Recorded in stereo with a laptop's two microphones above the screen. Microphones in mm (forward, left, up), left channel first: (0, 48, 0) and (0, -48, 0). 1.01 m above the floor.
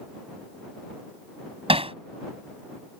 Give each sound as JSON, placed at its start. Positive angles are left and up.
{"t": 1.7, "sound": "hammering", "side_deg": -85}